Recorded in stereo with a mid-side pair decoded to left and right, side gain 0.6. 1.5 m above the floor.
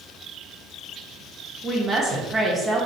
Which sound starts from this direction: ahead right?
A woman speaking, at 1.6 s.